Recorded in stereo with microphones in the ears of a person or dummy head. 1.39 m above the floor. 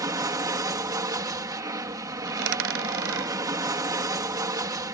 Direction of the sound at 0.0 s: 20° right (ahead or behind).